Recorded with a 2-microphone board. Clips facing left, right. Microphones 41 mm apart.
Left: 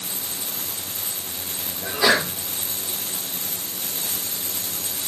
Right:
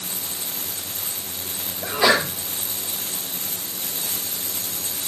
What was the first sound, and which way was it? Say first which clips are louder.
A sneeze: right 1 dB; 25° right (ahead or behind).